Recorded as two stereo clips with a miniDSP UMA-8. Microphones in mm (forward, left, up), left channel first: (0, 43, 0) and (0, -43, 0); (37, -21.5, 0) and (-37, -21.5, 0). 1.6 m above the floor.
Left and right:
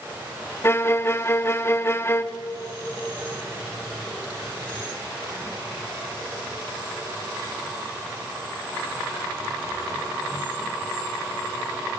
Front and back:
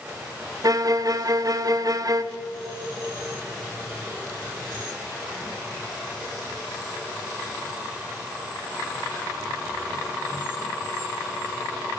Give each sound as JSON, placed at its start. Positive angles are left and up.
{"t": 0.6, "sound": "a violin", "azimuth_deg": 150, "distance_m": 0.7}